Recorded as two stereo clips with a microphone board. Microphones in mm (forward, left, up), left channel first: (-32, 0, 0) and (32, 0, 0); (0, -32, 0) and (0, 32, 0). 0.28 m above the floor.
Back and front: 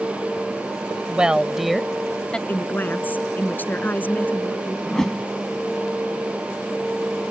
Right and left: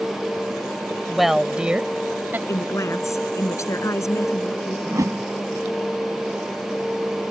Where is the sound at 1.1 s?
5° right; by 2.4 s 115° left.